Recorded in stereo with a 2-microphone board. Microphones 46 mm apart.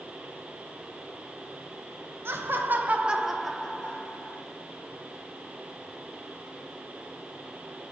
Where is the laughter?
60° right (ahead or behind), 1.1 m; by 4.4 s 40° left (ahead or behind), 1.3 m.